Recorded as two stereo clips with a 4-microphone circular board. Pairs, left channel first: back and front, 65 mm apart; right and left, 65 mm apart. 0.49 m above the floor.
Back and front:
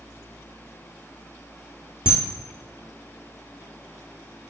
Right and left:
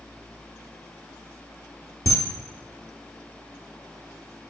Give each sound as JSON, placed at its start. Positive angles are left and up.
{"t": 2.1, "sound": "a camera shutter", "azimuth_deg": -70, "distance_m": 0.7}